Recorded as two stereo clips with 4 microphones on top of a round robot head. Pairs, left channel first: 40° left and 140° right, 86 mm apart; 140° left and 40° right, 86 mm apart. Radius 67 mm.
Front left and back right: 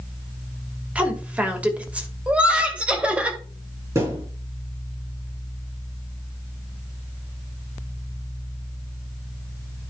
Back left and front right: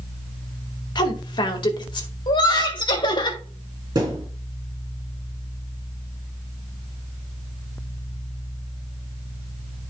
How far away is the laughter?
About 2 m.